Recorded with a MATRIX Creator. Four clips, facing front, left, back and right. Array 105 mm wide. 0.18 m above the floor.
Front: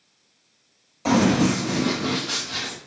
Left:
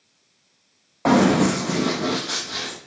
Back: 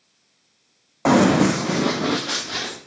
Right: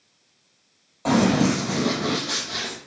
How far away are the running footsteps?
About 0.8 m.